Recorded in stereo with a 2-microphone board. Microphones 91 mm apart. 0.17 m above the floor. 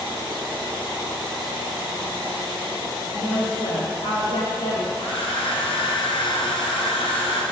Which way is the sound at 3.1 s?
65° left (ahead or behind).